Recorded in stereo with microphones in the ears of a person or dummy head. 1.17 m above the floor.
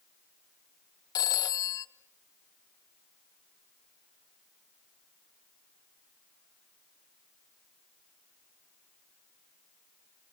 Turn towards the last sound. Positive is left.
turn(degrees=20)  # may be behind; listen again after turning